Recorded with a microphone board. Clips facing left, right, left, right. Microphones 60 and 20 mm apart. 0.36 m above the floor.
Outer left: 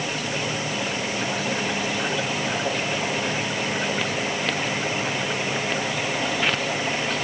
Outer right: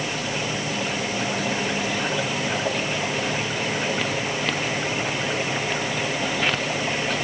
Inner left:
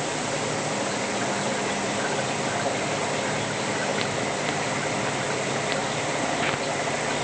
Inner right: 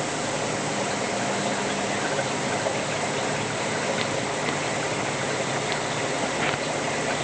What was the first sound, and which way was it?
Only background noise.